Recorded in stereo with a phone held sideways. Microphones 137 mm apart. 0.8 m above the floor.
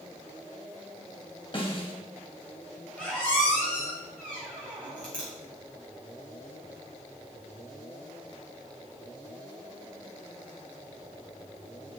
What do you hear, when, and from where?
1.5 s a snare drum: 35° left (ahead or behind), 1.5 m
3.0 s a squeak: 10° left (ahead or behind), 3.5 m